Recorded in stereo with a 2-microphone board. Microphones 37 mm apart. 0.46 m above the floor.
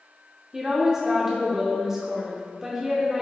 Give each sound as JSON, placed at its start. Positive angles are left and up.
{"t": 0.5, "sound": "a woman speaking", "side_deg": -15, "distance_m": 0.9}